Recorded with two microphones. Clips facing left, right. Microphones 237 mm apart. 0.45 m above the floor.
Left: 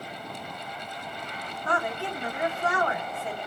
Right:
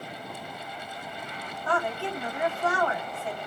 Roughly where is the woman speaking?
Centre.